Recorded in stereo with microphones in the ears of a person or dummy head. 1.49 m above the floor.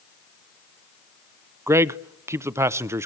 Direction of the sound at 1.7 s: 15° right (ahead or behind).